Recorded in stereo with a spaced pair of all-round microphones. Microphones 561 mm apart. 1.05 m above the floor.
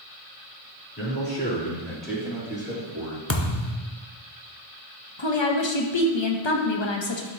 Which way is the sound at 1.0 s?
30° left (ahead or behind).